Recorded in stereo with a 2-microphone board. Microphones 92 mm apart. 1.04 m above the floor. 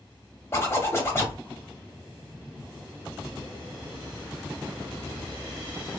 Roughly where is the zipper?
Left.